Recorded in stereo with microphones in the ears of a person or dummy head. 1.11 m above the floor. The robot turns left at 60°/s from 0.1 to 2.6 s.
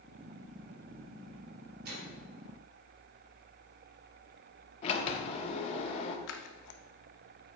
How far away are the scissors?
About 0.7 m.